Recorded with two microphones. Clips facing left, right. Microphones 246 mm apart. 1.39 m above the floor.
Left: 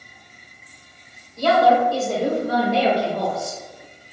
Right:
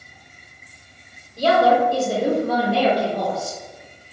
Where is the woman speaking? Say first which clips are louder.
Even; 40° right (ahead or behind), 0.8 m; by 3.6 s 45° left (ahead or behind), 1.1 m.